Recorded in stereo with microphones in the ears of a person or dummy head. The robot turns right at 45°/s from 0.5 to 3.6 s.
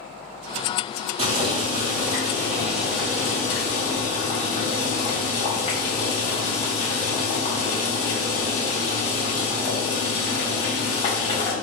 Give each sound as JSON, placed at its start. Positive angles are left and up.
{"t": 1.2, "sound": "boiling", "azimuth_deg": -65, "distance_m": 1.3}